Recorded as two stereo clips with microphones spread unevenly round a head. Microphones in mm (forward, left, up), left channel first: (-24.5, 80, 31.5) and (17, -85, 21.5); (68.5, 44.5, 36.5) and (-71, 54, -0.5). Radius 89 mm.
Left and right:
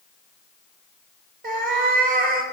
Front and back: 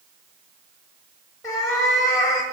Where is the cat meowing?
50° right, 1.1 m.